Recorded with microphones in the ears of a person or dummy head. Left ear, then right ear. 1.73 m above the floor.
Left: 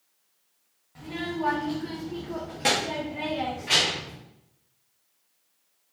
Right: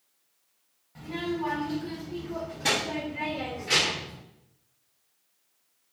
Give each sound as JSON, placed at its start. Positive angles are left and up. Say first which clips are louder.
{"t": 0.9, "sound": "a child speaking", "louder": "even", "side_deg": 0, "distance_m": 0.7}